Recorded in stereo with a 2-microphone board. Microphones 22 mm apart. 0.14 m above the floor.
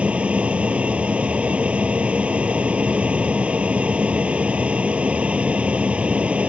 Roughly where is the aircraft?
Right.